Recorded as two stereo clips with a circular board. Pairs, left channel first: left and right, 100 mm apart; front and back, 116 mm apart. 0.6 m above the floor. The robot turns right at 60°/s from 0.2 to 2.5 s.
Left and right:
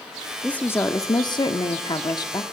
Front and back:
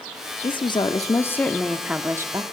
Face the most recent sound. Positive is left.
turn(degrees=135)